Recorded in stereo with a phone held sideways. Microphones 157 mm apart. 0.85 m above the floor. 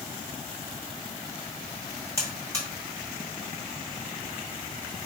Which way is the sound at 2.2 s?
20° right (ahead or behind).